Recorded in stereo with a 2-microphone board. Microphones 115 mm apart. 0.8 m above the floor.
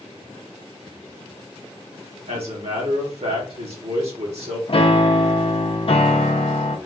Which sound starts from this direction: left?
A piano, at 4.7 s.